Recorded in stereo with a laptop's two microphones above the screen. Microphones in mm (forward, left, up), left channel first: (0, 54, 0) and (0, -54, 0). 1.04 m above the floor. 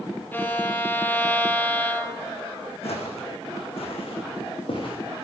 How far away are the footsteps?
About 3 m.